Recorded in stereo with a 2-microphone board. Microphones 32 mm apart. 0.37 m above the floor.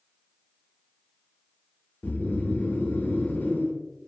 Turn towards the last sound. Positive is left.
turn(degrees=85)